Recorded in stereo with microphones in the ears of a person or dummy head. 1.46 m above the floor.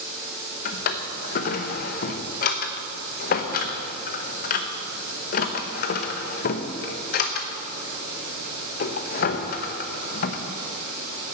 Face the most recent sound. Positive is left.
turn(degrees=45)  # may be behind; listen again after turning